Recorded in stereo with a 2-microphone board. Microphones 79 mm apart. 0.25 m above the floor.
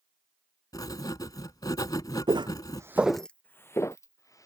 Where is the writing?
55° left (ahead or behind).